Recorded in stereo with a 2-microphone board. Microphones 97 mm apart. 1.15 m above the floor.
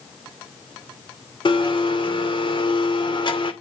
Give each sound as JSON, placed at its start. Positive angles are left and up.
{"t": 1.4, "sound": "a blender", "side_deg": 55, "distance_m": 2.5}